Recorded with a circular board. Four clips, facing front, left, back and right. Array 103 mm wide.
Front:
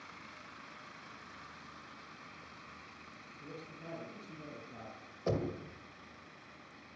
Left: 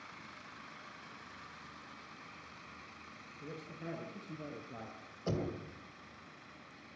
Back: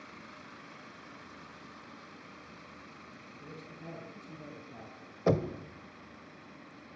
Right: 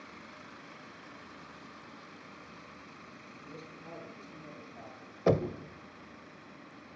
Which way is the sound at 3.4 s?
85° left.